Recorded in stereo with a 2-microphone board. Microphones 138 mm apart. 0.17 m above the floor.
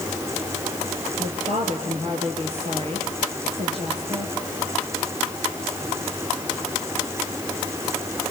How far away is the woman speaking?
About 3.5 m.